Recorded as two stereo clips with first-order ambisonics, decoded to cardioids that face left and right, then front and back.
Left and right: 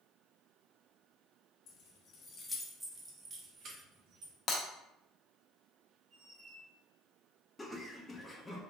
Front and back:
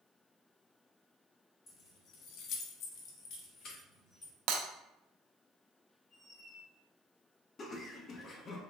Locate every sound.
1.7 s keys jangling: 55° left, 0.7 m; by 4.3 s 55° right, 1.1 m
4.5 s breaking glass: 150° left, 0.5 m
6.1 s a squeak: 45° right, 1.2 m
7.6 s laughter: 20° left, 0.5 m